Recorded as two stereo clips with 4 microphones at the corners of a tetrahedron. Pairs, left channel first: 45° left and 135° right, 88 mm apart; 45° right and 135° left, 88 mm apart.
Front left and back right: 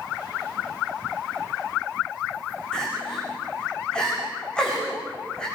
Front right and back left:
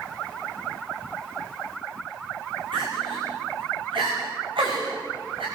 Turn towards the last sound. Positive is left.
turn(degrees=125)